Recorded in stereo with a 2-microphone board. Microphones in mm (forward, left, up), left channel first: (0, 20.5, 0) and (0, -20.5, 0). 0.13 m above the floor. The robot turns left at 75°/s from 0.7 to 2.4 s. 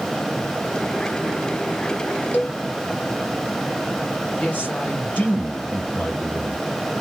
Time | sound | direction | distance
2.3 | a cowbell | 50° left (ahead or behind) | 1.7 m
4.4 | a man speaking | 40° left (ahead or behind) | 2.5 m